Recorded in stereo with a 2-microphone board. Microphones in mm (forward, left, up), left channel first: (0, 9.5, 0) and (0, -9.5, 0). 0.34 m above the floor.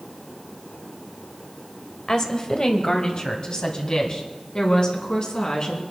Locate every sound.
2.1 s a woman speaking: 30° left (ahead or behind), 1.3 m; by 5.8 s 50° left (ahead or behind), 4 m